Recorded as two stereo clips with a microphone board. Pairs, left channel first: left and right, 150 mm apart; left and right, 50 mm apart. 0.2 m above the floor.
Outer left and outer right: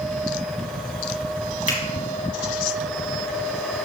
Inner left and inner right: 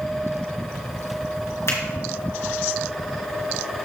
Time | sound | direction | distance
1.7 | a finger snap | 60° left (ahead or behind) | 3 m